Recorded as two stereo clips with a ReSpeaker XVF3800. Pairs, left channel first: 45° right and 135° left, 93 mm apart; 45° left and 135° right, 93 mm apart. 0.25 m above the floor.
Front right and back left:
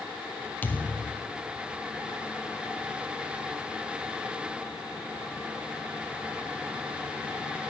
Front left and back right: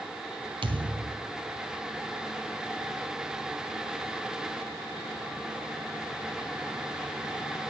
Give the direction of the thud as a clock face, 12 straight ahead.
4 o'clock.